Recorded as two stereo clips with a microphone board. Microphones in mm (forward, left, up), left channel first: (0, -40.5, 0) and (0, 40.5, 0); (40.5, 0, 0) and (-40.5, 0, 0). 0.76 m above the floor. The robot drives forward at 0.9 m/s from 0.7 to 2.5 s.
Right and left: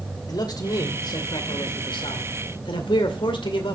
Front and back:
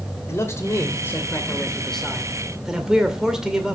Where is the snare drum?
I don't hear a snare drum.